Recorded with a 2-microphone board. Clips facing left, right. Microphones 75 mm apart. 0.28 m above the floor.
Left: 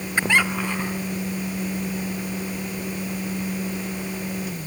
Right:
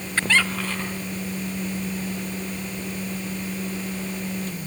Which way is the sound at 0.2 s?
15° left (ahead or behind).